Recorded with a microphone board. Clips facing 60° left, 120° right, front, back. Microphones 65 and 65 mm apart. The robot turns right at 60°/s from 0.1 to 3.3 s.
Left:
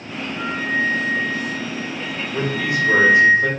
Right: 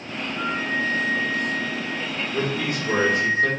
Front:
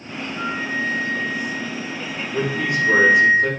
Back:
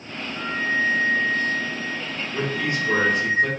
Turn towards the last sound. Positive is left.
turn(degrees=55)